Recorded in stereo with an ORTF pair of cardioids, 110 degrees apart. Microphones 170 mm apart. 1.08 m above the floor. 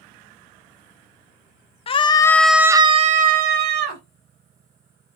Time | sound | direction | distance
1.9 | a scream | 35° left | 0.7 m